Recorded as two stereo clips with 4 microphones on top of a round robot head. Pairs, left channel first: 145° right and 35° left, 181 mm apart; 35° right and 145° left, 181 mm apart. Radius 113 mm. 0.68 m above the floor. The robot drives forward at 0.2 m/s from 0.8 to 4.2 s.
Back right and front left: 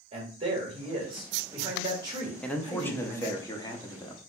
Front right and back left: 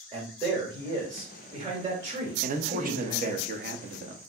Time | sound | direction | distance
0.1 | a man speaking | 85° left | 1.8 m
2.4 | a man speaking | 130° left | 0.7 m